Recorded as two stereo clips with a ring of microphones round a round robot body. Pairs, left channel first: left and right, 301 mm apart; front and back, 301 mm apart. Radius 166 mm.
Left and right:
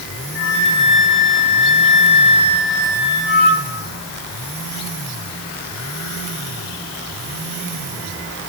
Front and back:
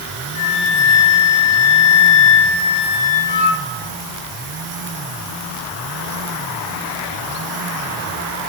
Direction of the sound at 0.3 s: 35° left.